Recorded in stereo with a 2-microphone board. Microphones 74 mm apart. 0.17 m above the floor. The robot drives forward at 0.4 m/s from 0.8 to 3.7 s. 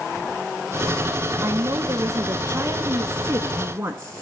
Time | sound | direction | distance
1.4 | a woman speaking | 40° right (ahead or behind) | 1.3 m